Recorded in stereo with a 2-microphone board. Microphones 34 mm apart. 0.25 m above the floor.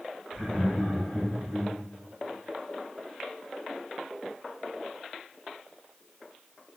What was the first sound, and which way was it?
Laughter, 20° right (ahead or behind).